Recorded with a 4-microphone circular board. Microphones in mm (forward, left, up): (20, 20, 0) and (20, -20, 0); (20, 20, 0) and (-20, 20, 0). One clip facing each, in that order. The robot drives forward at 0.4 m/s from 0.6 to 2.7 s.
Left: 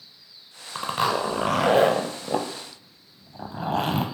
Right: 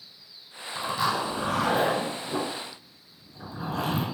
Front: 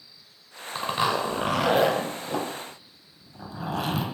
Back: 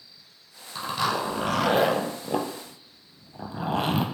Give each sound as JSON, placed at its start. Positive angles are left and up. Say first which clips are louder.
{"t": 0.8, "sound": "a zipper", "louder": "left 3 dB, front 1 dB", "azimuth_deg": 50, "distance_m": 0.7}